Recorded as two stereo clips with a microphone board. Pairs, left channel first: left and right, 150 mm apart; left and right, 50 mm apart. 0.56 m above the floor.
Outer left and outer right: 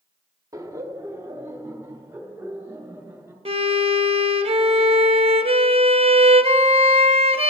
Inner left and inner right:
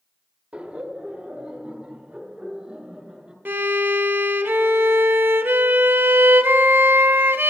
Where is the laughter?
20° right (ahead or behind), 0.8 m; by 3.4 s 15° right (ahead or behind), 2.5 m.